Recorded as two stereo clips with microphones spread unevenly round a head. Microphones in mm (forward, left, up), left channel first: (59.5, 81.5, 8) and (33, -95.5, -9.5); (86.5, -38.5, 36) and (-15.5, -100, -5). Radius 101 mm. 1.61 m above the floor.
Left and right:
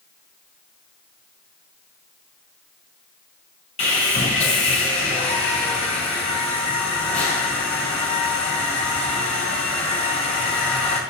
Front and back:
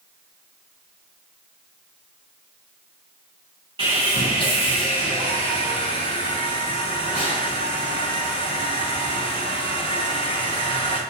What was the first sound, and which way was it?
Sawing, 135° left.